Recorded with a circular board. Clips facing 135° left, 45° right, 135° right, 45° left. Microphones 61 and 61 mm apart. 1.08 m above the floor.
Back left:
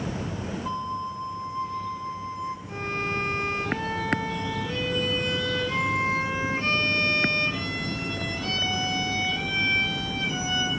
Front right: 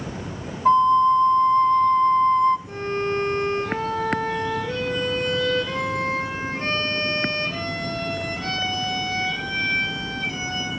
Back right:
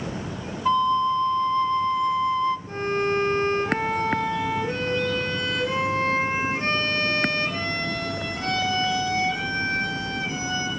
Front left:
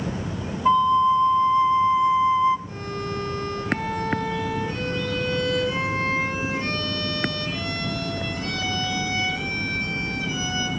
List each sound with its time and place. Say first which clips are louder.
0.7 s a flute: front right 18 dB, front left 3 dB; 30° right, 0.7 m
2.7 s a violin: front right 5 dB, back right 6 dB; 85° right, 7.5 m